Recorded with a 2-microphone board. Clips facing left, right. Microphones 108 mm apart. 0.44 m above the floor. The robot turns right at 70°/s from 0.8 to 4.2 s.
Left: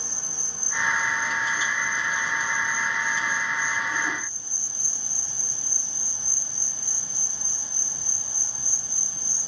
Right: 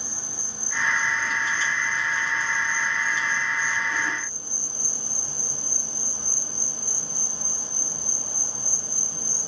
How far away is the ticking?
No ticking in this recording.